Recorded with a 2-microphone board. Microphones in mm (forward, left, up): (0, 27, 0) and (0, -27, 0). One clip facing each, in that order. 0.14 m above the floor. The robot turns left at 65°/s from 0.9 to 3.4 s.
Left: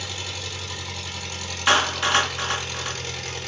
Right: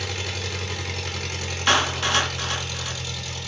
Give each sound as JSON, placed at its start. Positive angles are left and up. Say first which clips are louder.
{"t": 0.0, "sound": "an engine running", "louder": "right 3 dB", "azimuth_deg": -100, "distance_m": 1.0}
{"t": 1.7, "sound": "a clap", "louder": "left 2 dB", "side_deg": 15, "distance_m": 0.9}